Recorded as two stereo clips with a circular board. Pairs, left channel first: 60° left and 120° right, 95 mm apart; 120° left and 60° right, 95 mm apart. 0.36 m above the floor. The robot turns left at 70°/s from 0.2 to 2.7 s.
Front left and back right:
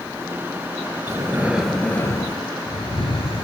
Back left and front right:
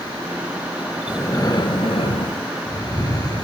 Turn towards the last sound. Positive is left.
turn(degrees=80)